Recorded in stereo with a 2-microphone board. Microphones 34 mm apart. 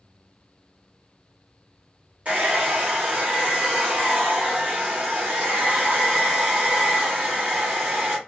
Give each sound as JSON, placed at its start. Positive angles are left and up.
{"t": 2.2, "sound": "a hair dryer", "side_deg": -45, "distance_m": 1.6}